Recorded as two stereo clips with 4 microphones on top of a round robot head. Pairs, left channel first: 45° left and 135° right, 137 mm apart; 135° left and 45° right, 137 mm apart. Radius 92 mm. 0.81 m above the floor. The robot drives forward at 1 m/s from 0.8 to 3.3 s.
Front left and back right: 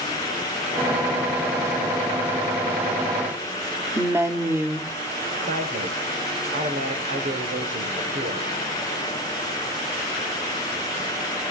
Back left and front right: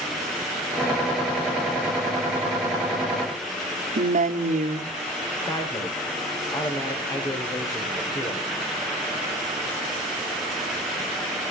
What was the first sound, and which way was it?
A woman speaking, 65° right.